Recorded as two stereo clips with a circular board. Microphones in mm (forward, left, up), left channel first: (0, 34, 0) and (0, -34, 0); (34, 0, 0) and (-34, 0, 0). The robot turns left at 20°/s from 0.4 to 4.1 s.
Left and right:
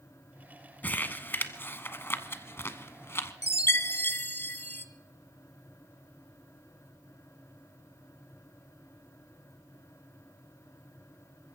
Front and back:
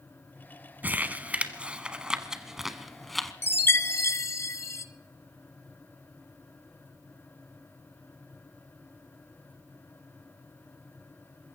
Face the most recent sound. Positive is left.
turn(degrees=35)